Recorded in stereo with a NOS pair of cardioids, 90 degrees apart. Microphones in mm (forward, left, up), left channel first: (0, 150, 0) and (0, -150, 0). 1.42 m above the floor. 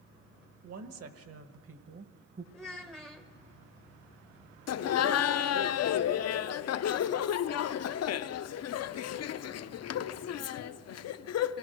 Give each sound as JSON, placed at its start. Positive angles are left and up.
{"t": 0.6, "sound": "a woman speaking", "azimuth_deg": -60, "distance_m": 1.9}
{"t": 2.5, "sound": "a child speaking", "azimuth_deg": -5, "distance_m": 0.9}
{"t": 4.7, "sound": "laughter", "azimuth_deg": 55, "distance_m": 0.8}